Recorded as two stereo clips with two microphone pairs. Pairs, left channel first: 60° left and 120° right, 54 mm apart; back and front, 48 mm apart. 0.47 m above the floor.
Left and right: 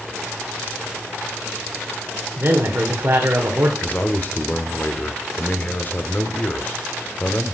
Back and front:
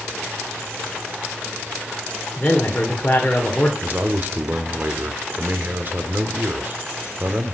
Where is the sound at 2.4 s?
130° right, 1.8 m.